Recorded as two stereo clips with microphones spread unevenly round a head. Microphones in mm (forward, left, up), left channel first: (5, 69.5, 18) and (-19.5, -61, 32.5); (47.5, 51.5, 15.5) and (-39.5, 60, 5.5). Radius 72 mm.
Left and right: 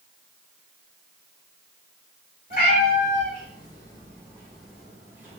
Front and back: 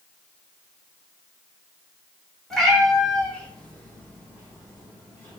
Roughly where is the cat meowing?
Left.